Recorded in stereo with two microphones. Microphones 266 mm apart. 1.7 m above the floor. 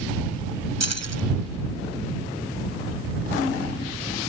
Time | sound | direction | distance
0.8 | keys jangling | 75° right (ahead or behind) | ?